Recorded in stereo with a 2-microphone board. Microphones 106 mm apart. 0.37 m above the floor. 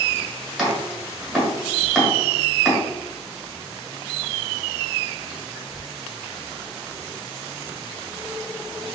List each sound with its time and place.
0.6 s chopping: centre (ahead or behind), 1.5 m